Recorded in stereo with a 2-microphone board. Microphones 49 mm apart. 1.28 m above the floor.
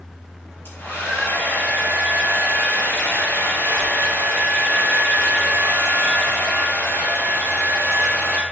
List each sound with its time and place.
0.7 s a hair dryer: 50° left (ahead or behind), 4 m